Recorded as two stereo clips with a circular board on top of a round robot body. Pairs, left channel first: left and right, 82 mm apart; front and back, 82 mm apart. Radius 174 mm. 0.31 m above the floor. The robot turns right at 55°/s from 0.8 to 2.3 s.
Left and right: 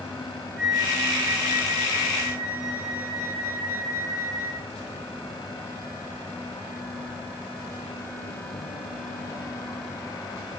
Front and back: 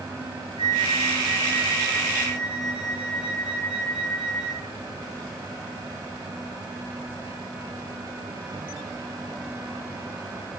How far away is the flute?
About 8.5 m.